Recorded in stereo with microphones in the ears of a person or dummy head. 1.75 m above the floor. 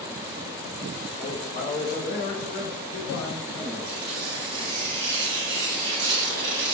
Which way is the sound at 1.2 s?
25° left (ahead or behind).